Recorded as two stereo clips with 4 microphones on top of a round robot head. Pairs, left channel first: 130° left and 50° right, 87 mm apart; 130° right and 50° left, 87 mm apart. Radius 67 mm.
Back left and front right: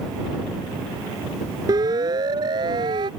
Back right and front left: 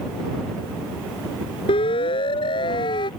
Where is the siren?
100° right; by 3.1 s 90° right.